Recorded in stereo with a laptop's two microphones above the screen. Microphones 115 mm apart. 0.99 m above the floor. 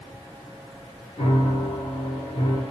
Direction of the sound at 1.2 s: 50° left (ahead or behind).